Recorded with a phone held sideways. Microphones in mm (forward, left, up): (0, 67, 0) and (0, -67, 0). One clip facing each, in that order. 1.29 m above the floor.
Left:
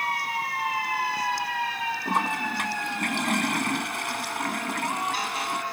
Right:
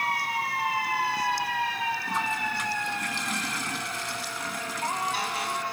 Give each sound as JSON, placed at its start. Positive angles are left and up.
{"t": 2.0, "sound": "a toilet flushing", "side_deg": 55}